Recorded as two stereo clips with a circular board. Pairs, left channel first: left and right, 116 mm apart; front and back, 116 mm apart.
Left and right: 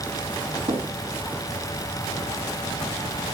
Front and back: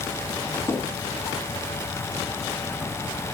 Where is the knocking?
60° right, 2.5 m.